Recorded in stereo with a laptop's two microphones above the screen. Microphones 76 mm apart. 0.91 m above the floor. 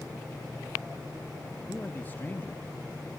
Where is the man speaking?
25° left (ahead or behind), 0.9 m.